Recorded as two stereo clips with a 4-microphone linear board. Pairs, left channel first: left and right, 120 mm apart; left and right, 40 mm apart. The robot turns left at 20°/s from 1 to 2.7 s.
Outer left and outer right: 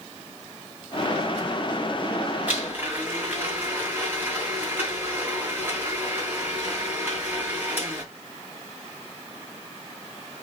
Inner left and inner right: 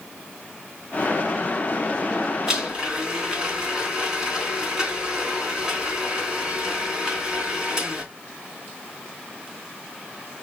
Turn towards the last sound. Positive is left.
turn(degrees=-15)  # may be behind; listen again after turning